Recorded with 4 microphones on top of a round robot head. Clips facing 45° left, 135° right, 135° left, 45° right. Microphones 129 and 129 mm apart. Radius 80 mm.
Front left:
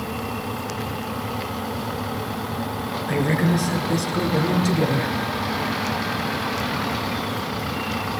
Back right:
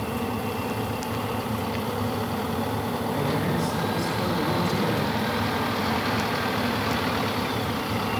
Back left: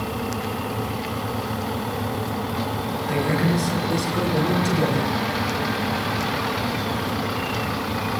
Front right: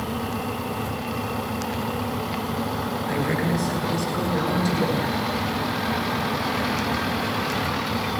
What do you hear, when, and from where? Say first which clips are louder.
3.1 s a woman speaking: front left 7 dB, back left 3 dB; 55° left, 9 m; by 5.2 s 60° left, 9.5 m